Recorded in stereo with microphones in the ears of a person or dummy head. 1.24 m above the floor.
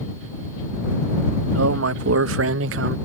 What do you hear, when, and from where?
1.5 s a man speaking: 75° right (ahead or behind); by 3.0 s 55° right (ahead or behind)